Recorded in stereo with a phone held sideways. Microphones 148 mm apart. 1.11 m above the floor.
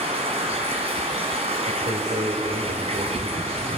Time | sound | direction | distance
0.0 | running water | 45° right (ahead or behind) | 3 m
1.7 | a man speaking | 65° right (ahead or behind) | 3.5 m